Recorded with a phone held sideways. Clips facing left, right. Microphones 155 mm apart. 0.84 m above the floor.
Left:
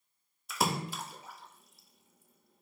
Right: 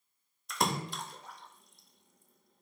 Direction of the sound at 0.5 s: 5° left (ahead or behind).